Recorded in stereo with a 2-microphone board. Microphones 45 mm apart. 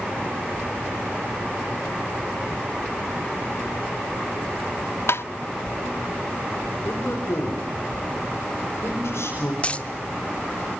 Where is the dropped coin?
30° left (ahead or behind), 1.1 m.